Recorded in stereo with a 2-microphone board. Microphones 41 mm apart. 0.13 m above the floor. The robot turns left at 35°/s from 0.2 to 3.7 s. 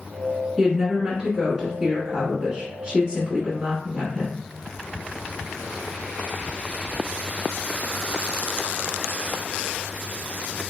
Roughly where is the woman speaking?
Centre.